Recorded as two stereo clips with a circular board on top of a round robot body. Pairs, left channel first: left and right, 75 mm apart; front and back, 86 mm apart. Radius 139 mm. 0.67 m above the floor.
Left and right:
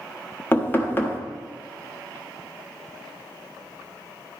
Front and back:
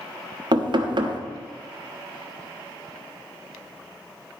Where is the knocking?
155° left, 1.2 m.